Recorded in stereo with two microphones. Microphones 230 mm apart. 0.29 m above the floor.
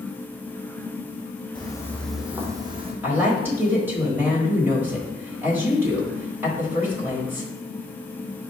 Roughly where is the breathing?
No breathing in this recording.